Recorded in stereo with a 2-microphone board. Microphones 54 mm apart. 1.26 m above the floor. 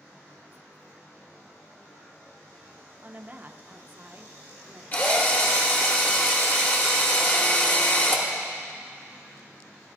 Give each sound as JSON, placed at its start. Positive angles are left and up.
{"t": 3.0, "sound": "a woman speaking", "side_deg": -35, "distance_m": 0.5}
{"t": 4.9, "sound": "a drill", "side_deg": 35, "distance_m": 1.2}